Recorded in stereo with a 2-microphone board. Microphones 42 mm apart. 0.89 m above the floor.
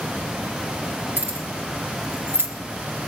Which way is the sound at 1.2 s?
50° right (ahead or behind).